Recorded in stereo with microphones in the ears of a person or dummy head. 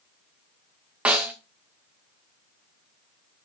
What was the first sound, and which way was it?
A snare drum, 5° right (ahead or behind).